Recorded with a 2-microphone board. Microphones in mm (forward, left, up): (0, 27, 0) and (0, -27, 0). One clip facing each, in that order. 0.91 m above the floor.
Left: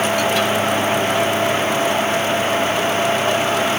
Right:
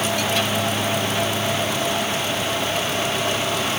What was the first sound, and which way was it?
Only background noise.